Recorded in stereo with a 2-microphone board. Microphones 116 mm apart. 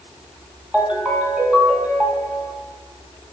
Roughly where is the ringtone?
Centre.